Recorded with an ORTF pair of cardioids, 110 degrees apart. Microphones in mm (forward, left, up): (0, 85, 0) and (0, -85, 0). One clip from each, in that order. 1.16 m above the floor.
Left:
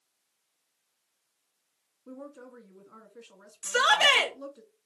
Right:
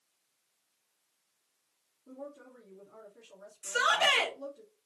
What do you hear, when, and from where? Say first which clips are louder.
2.1 s a woman speaking: left 1 dB; 50° left, 2 m
3.6 s a shout: left 5 dB; 60° left, 1.9 m